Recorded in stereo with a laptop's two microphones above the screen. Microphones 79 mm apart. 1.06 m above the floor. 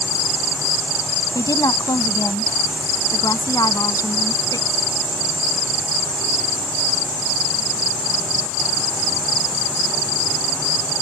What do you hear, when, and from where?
1.4 s a woman speaking: 50° left (ahead or behind)